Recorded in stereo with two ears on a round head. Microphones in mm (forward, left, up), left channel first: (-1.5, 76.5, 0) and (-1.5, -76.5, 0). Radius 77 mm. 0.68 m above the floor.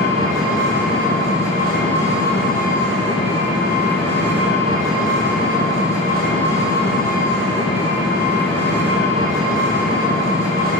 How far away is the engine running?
About 0.9 m.